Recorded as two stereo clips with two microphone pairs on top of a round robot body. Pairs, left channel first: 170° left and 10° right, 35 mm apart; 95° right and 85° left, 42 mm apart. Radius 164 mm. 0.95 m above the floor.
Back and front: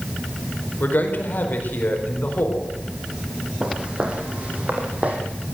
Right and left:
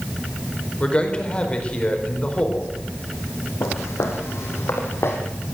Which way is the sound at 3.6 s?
80° right.